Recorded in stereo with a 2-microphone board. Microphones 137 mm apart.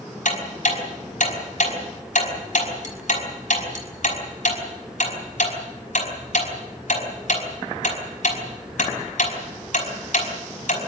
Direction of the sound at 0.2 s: 65° left (ahead or behind).